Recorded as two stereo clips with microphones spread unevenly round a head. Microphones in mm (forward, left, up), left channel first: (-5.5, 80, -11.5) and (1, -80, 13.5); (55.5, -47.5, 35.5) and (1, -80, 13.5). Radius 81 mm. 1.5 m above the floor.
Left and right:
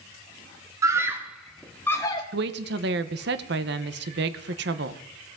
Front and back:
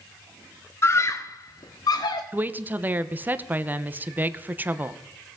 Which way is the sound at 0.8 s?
15° right.